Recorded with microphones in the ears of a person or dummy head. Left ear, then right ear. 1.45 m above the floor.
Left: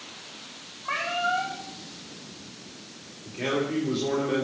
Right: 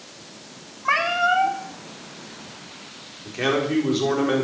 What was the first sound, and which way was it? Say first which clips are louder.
A cat meowing: right 7 dB; 70° right (ahead or behind).